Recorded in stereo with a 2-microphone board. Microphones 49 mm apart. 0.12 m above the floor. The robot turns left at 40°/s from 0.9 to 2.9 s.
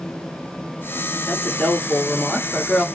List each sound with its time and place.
1.3 s a woman speaking: 25° left (ahead or behind), 1.6 m; by 2.9 s 15° left (ahead or behind), 1.6 m